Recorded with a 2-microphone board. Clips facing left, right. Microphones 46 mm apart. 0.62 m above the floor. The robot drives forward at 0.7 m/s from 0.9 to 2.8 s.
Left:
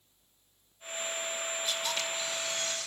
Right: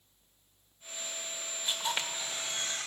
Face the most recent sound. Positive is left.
turn(degrees=-35)  # may be behind; listen again after turning